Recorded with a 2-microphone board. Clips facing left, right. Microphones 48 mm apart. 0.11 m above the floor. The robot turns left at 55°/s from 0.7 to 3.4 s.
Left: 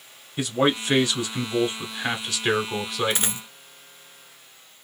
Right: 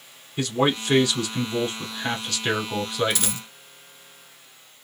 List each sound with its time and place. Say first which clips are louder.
0.4 s a man speaking: even; 15° left (ahead or behind), 1.1 m; by 3.5 s 10° right (ahead or behind), 1.1 m
3.1 s a dropped coin: even; 30° left (ahead or behind), 0.6 m; by 3.5 s 25° left (ahead or behind), 0.6 m